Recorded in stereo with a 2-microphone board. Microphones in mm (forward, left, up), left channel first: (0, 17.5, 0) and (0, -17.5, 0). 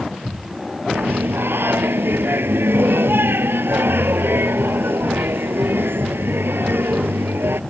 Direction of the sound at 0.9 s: 85° right.